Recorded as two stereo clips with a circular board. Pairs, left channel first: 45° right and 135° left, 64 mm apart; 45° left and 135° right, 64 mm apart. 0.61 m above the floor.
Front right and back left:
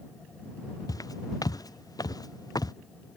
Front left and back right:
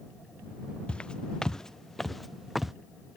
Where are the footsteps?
30° right; by 2.7 s 50° right.